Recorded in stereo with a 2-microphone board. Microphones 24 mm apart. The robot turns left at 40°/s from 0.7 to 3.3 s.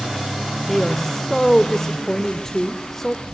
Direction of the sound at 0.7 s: 15° left (ahead or behind).